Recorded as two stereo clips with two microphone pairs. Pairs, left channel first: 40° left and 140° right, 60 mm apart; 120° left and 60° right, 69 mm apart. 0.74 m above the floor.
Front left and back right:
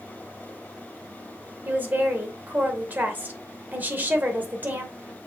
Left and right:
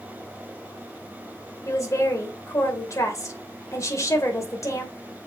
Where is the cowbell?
No cowbell in this recording.